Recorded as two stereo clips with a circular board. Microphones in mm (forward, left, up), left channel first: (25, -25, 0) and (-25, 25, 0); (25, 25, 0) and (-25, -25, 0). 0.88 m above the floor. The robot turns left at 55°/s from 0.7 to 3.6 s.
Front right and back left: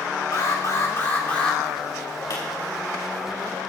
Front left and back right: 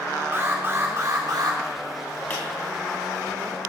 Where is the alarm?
80° right, 3 m; by 1.6 s 130° right, 3 m.